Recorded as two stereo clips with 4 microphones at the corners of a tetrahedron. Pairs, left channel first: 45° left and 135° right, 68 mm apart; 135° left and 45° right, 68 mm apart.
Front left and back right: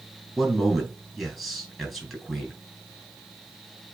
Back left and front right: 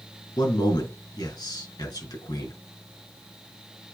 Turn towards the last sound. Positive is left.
turn(degrees=135)